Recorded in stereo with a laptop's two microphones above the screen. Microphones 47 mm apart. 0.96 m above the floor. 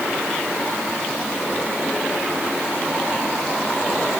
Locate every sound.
Only background noise.